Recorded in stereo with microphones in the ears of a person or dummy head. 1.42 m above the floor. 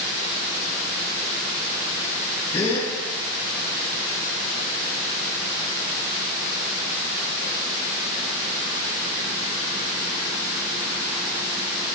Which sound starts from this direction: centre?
A gasp, at 2.5 s.